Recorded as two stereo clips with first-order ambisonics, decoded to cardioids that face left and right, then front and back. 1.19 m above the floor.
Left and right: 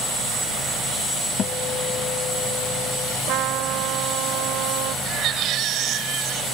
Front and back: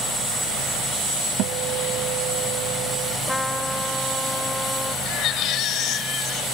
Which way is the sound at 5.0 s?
45° right.